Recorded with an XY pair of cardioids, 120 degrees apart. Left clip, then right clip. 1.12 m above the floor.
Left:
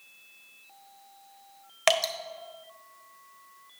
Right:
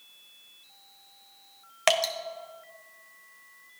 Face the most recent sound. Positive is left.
turn(degrees=0)